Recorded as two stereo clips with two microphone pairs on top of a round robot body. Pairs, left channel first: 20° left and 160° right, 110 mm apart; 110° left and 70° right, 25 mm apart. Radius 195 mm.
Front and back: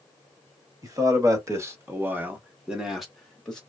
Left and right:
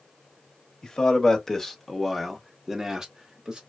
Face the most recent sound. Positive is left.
turn(degrees=-60)